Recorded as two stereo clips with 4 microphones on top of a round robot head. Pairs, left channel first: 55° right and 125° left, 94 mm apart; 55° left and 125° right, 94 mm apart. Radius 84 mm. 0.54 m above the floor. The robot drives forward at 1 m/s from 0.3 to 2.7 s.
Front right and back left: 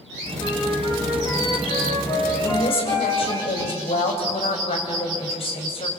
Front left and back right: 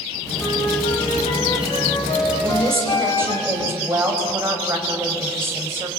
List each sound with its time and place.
0.4 s a flute: straight ahead, 5 m
2.4 s a woman speaking: 60° right, 4 m